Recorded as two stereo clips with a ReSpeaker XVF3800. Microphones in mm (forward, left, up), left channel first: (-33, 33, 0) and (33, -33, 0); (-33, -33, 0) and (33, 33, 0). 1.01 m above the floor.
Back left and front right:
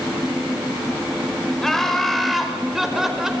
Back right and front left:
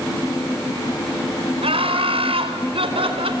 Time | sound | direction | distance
1.6 | laughter | 50° left | 5 m